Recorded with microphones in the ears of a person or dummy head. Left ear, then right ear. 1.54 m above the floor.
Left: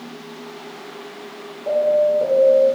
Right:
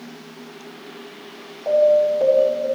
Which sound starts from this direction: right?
An alarm, at 1.7 s.